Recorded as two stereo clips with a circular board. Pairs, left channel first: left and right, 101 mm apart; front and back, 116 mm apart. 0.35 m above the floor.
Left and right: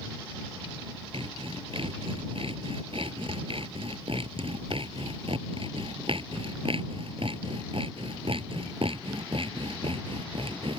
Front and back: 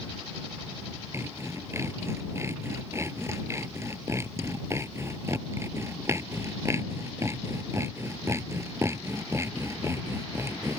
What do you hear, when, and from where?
1.1 s sawing: 115° right